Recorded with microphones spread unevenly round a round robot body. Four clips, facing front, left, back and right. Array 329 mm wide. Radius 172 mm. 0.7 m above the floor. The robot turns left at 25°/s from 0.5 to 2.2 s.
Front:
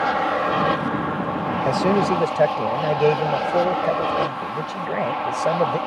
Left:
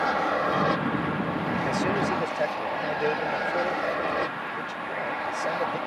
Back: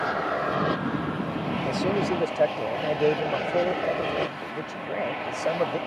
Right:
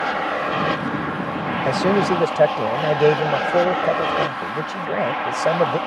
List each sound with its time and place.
0.0 s an aircraft: 10° right; by 5.9 s 55° right
1.6 s a man speaking: 40° right; by 5.8 s 50° right